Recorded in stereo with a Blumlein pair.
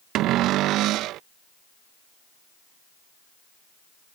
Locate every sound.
0.1 s a cupboard door: 35° right